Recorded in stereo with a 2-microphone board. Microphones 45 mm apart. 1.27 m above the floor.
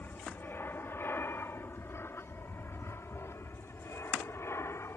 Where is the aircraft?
50° left (ahead or behind); by 5.0 s 70° left (ahead or behind).